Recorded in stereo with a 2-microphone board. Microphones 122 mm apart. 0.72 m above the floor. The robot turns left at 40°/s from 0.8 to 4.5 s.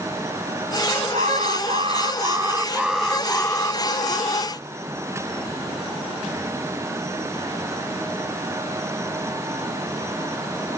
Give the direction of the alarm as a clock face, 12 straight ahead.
3 o'clock.